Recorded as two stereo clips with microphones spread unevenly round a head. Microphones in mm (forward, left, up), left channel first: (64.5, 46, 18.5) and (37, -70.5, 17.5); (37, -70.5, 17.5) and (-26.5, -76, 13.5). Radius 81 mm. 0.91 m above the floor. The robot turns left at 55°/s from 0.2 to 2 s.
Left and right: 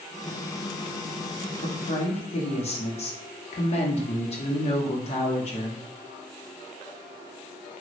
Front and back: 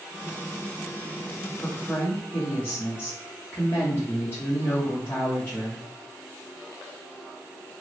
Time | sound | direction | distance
1.6 | a woman speaking | 90° left | 0.9 m